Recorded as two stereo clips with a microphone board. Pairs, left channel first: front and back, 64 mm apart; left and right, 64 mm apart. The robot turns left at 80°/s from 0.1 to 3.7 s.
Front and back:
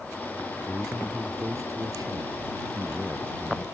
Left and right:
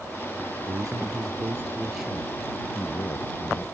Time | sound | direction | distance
0.7 | a man speaking | 65° right | ?